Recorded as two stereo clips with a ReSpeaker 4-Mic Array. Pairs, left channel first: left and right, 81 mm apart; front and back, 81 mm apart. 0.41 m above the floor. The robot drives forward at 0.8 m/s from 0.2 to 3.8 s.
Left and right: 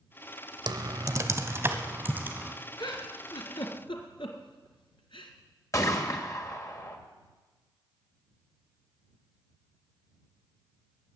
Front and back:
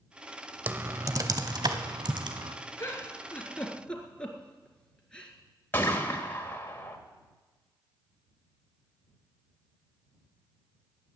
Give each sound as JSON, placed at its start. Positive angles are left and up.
{"t": 0.7, "sound": "typing on a keyboard", "azimuth_deg": -115, "distance_m": 0.7}
{"t": 2.8, "sound": "a giggle", "azimuth_deg": 55, "distance_m": 2.0}
{"t": 5.7, "sound": "a gunshot", "azimuth_deg": 55, "distance_m": 1.7}